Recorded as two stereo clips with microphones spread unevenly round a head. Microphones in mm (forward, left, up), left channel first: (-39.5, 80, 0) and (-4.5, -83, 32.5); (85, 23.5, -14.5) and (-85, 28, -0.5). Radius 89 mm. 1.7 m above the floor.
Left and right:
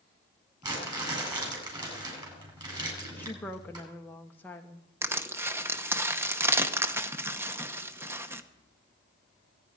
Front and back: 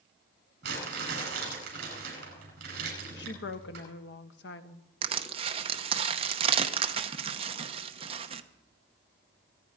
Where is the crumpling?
145° right, 9.5 m.